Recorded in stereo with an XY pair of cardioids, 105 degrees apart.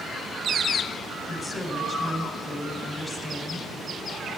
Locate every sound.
1.3 s a woman speaking: 5° right, 8 m